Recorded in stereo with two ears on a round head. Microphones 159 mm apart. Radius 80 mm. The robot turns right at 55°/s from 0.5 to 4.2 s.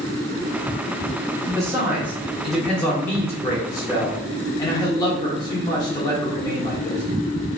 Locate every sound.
1.5 s a man speaking: 20° right (ahead or behind), 0.9 m; by 7.0 s 20° left (ahead or behind), 0.9 m